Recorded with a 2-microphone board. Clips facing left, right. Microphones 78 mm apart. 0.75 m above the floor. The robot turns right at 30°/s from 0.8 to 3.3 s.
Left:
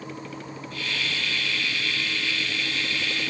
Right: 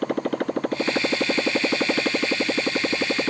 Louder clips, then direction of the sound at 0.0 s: Right 13 dB; 120° right.